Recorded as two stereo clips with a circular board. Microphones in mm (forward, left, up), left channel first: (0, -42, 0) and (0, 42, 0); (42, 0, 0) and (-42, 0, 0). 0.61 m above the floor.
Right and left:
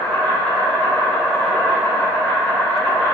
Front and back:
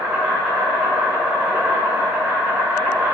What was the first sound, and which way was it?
An insect, 145° right.